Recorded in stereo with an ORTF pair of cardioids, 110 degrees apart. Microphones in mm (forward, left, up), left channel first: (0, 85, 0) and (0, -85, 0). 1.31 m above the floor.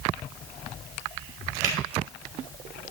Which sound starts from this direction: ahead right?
A finger snap, at 1.6 s.